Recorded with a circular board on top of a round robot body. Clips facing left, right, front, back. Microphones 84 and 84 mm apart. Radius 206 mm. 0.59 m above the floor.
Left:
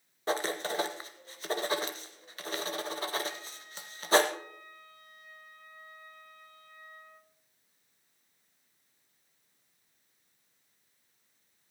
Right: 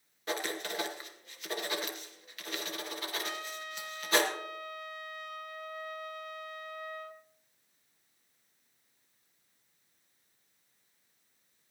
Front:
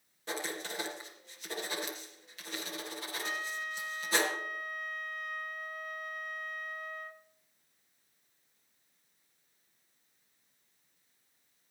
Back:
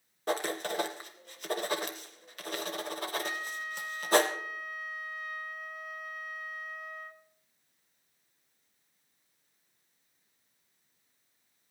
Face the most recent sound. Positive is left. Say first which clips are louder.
# right 1 dB, back 1 dB
turn(degrees=-95)